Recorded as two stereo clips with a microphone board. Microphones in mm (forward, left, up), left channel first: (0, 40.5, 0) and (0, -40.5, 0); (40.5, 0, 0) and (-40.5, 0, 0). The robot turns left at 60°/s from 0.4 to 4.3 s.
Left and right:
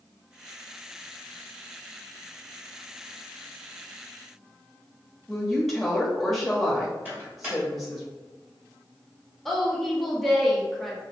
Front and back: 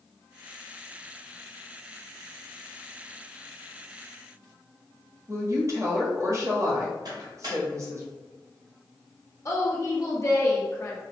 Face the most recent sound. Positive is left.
turn(degrees=5)